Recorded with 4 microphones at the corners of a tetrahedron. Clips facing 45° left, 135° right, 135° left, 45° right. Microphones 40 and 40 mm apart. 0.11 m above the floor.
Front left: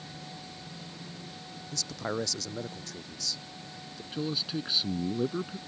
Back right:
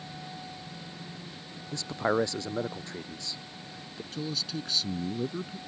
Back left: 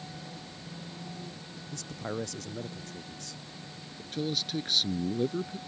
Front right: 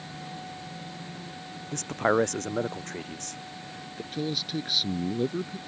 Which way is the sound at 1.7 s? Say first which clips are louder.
Back right 6 dB, front right 13 dB; 75° right.